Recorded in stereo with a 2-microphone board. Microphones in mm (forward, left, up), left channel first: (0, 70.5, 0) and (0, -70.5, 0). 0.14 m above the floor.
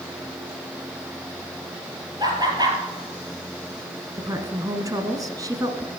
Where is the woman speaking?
25° right (ahead or behind), 1.5 m.